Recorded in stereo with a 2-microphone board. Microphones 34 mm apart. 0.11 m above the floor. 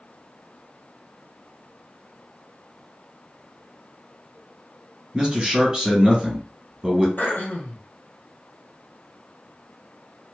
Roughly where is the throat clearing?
Left.